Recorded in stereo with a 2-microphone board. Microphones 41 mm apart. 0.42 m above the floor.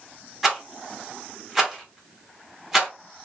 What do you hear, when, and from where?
0.4 s a rattle: 5° right (ahead or behind), 0.8 m